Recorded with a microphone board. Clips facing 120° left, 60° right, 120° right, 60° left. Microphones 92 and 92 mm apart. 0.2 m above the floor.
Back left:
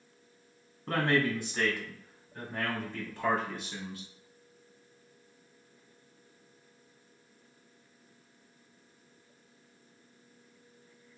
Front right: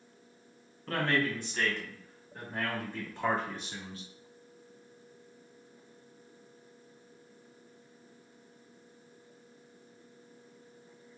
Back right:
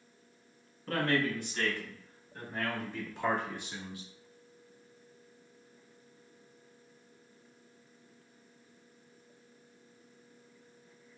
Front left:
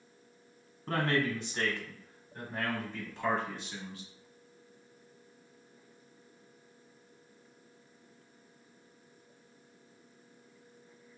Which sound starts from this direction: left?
A man speaking, at 0.9 s.